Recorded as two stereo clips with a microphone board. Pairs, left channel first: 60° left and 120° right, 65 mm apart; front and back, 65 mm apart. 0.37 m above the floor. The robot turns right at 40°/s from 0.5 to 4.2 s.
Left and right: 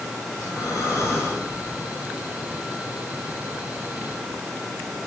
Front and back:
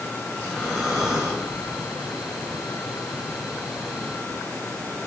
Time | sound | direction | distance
0.3 | breathing | 75° left | 4 m